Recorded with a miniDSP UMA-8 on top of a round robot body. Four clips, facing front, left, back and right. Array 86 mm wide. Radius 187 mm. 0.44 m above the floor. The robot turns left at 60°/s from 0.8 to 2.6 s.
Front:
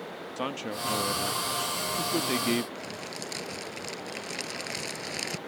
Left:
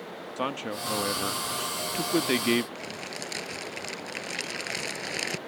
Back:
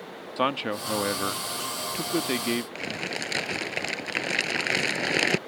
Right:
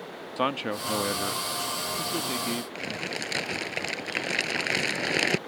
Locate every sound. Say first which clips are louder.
0.4 s a man speaking: right 4 dB, back 7 dB; 155° right; by 2.6 s 95° left
2.8 s crumpling: right 4 dB, back 5 dB; 150° right